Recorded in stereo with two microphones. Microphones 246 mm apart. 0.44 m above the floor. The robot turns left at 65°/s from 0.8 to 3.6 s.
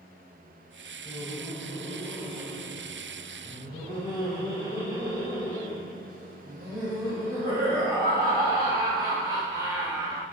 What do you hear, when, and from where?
1.1 s laughter: 20° left (ahead or behind), 1.1 m; by 10.2 s 15° right (ahead or behind), 1.1 m